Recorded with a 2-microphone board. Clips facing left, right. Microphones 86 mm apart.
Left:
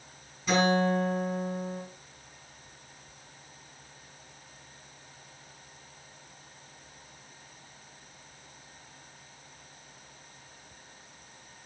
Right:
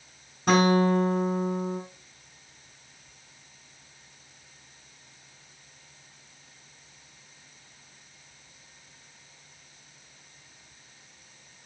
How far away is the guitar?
About 5.5 m.